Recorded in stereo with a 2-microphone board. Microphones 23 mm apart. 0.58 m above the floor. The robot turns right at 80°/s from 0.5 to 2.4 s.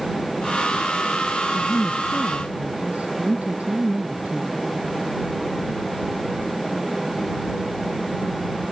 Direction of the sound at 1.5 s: 155° right.